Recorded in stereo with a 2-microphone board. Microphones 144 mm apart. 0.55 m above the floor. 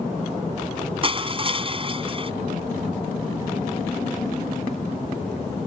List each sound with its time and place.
1.0 s crushing: 35° right (ahead or behind)